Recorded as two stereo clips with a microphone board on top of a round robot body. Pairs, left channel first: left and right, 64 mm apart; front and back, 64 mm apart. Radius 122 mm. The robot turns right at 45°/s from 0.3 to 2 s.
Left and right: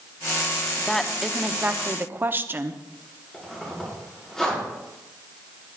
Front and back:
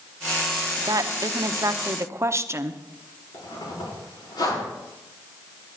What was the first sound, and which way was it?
A woman speaking, 165° left.